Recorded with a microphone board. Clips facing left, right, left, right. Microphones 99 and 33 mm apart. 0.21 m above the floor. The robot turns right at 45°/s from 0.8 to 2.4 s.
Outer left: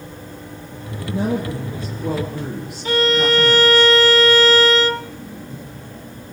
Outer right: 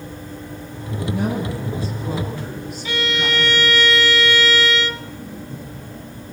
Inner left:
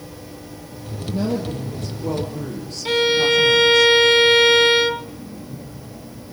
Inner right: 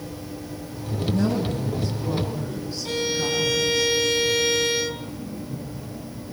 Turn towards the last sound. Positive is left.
turn(degrees=40)  # may be behind; listen again after turning